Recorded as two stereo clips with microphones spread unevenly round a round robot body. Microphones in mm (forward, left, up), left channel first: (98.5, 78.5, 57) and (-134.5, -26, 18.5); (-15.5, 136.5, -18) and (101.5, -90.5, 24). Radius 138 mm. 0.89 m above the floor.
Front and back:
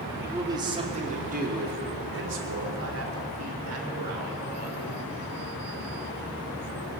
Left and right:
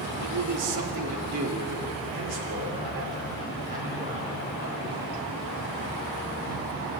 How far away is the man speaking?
About 2.5 m.